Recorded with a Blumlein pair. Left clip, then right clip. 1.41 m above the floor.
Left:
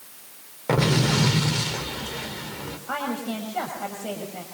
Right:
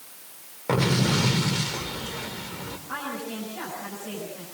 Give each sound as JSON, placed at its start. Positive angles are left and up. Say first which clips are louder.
{"t": 0.7, "sound": "an explosion", "louder": "left 2 dB", "azimuth_deg": 5, "distance_m": 3.0}
{"t": 2.9, "sound": "a woman speaking", "louder": "left 5 dB", "azimuth_deg": 55, "distance_m": 6.5}